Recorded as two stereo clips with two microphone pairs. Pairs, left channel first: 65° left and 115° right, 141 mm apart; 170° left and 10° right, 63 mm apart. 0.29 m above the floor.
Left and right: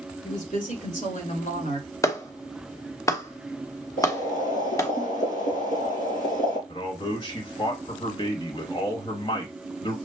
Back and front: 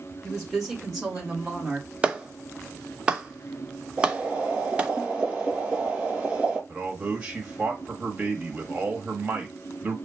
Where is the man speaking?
45° left, 1.1 m.